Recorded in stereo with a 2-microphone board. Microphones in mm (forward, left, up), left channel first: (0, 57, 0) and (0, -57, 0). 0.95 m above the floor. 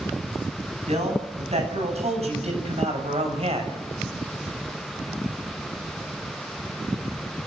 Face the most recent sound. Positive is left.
turn(degrees=-65)  # may be behind; listen again after turning